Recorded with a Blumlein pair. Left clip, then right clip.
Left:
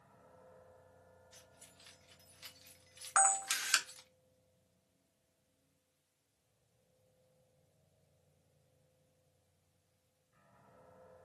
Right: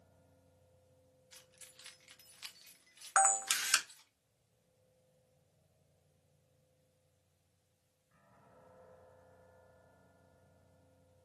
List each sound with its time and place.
1.3 s keys jangling: 60° right, 0.9 m; by 4.1 s 45° left, 0.9 m
3.2 s a camera shutter: 15° right, 0.5 m